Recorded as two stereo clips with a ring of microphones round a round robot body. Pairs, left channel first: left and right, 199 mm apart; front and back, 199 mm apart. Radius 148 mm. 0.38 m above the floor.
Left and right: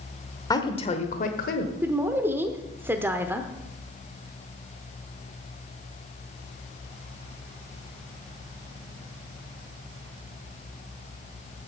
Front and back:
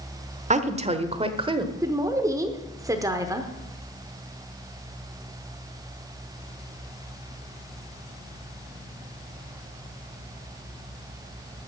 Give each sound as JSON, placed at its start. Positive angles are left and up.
{"t": 0.5, "sound": "a woman speaking", "azimuth_deg": 155, "distance_m": 1.1}
{"t": 1.8, "sound": "a woman speaking", "azimuth_deg": -145, "distance_m": 0.9}